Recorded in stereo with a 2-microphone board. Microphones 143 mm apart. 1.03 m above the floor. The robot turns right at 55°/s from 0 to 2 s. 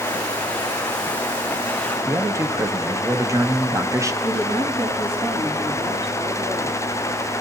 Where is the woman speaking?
45° right (ahead or behind), 8.5 m.